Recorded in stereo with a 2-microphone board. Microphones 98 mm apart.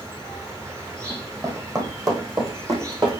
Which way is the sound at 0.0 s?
30° right (ahead or behind).